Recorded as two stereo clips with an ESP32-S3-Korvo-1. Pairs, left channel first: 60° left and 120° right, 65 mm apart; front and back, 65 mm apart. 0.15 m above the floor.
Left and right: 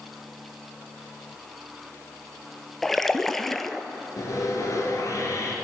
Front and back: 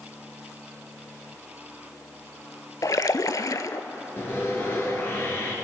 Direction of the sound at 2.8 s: 25° right.